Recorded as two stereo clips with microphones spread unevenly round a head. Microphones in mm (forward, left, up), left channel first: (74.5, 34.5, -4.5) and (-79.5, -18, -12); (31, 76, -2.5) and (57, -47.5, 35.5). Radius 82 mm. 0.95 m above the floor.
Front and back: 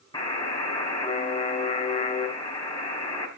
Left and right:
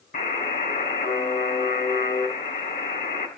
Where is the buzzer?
85° left, 6 m.